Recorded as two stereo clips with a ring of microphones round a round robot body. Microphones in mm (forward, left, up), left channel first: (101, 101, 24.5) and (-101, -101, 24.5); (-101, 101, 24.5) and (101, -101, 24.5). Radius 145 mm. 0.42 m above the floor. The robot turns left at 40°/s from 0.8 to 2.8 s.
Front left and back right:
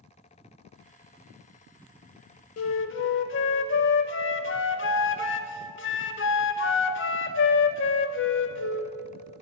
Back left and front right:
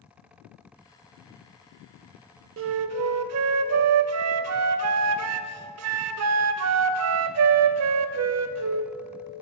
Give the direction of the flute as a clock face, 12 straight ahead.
12 o'clock.